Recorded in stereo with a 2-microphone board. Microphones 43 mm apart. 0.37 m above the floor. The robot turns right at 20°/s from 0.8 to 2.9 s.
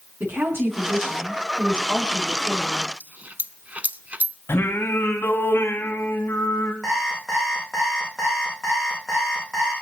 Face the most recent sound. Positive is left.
turn(degrees=0)  # may be behind; listen again after turning